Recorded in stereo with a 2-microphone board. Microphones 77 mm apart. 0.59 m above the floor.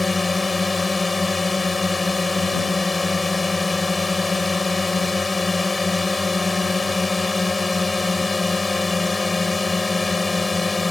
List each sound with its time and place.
0.0 s a drone: centre (ahead or behind)